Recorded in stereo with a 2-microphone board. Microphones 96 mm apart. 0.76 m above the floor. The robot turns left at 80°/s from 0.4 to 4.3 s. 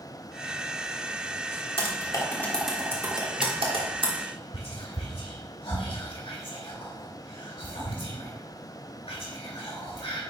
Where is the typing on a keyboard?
65° left (ahead or behind), 1.4 m; by 4.1 s 65° right (ahead or behind), 1.4 m.